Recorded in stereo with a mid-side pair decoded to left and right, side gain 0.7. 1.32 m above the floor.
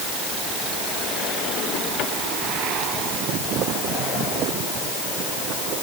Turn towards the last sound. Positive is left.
No sound to turn to.